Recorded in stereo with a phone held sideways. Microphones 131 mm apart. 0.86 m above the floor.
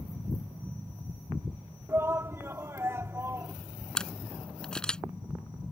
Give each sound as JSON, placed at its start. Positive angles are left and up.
{"t": 1.9, "sound": "a shout", "side_deg": -20}
{"t": 4.0, "sound": "a camera shutter", "side_deg": 5}